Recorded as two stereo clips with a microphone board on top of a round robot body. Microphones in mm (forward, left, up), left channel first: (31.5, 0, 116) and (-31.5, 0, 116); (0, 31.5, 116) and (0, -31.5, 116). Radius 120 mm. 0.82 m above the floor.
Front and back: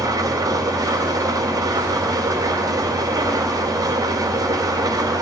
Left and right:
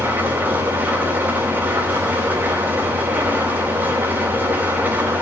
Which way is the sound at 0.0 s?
155° right.